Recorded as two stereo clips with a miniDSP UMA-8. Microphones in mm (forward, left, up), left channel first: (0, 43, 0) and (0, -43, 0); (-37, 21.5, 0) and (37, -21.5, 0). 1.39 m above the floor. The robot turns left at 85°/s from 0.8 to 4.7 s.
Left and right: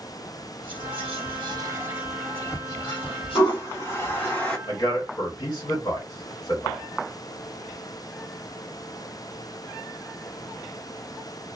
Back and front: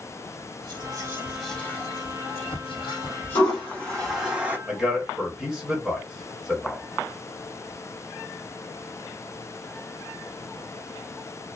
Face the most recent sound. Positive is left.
turn(degrees=60)